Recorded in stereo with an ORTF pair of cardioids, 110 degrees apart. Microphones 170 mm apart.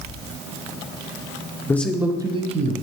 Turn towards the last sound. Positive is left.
turn(degrees=-45)